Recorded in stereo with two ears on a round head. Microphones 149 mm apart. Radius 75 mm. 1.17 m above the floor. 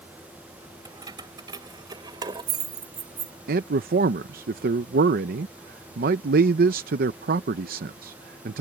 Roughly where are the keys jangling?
Right.